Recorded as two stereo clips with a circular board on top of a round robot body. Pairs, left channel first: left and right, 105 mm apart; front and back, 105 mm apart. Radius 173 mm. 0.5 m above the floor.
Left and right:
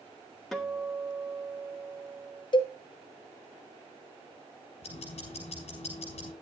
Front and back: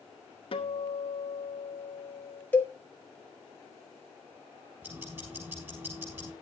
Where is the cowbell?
70° left, 2.0 m.